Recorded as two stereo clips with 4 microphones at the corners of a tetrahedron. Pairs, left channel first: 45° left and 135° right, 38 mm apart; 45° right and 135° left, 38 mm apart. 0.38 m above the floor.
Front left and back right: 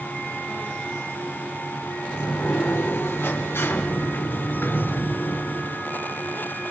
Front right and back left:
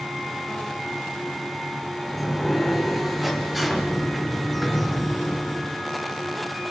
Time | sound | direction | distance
2.1 | a sliding door | 50° left | 3 m